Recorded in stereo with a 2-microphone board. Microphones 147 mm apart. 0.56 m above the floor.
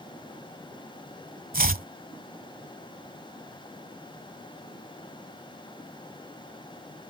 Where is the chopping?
75° right (ahead or behind).